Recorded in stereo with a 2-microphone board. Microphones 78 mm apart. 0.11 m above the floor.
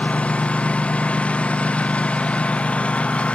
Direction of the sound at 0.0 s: 15° left (ahead or behind).